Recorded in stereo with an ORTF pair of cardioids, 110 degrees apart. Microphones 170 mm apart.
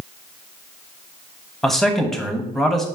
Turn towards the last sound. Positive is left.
turn(degrees=0)